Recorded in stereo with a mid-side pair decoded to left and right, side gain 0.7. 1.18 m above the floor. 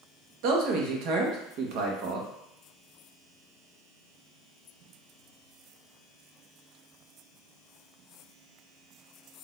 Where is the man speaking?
65° right, 1.3 m.